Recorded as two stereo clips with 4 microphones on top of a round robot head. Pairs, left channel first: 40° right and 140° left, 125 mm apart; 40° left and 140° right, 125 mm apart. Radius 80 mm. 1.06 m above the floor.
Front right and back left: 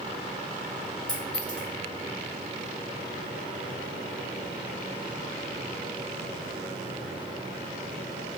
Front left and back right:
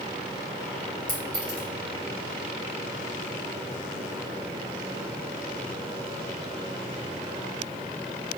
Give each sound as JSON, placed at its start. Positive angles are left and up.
{"t": 1.1, "sound": "a clink", "azimuth_deg": -125, "distance_m": 1.5}